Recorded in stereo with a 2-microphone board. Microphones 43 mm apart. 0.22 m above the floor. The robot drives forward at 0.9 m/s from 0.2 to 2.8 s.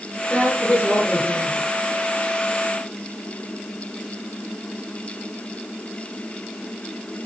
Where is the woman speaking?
40° left (ahead or behind), 3 m; by 1.7 s 30° left (ahead or behind), 4 m.